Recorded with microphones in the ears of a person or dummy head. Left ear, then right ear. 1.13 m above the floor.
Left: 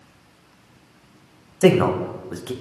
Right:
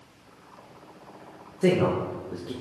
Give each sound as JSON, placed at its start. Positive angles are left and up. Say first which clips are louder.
{"t": 1.6, "sound": "a man speaking", "louder": "left 6 dB", "side_deg": 45, "distance_m": 0.5}